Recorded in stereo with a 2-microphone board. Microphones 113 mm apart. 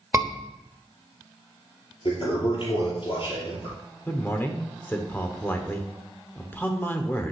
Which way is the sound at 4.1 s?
20° left (ahead or behind).